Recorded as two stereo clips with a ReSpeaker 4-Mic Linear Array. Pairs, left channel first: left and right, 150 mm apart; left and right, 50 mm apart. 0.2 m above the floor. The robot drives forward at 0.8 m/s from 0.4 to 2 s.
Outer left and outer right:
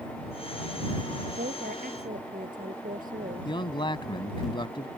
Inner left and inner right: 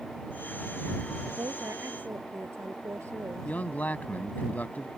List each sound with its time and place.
1.4 s a woman speaking: 70° right (ahead or behind)
3.5 s a man speaking: 35° left (ahead or behind)